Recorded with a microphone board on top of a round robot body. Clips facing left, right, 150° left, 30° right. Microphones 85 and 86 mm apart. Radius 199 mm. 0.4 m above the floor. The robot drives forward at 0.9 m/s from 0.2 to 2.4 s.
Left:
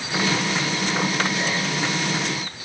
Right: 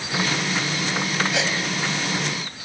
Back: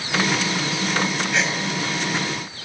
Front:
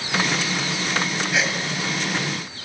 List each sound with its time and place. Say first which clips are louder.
1.3 s a gasp: right 1 dB, front 1 dB; 115° right, 6.5 m; by 1.6 s 120° right, 6.5 m